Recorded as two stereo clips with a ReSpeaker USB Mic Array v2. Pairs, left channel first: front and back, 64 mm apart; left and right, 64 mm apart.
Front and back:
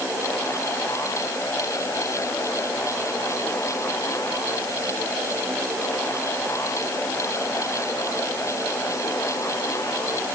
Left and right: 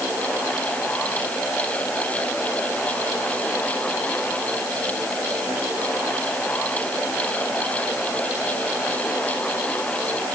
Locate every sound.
Only background noise.